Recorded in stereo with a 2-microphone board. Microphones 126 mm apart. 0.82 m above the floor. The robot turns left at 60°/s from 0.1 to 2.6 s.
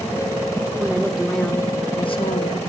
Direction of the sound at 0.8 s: 155° right.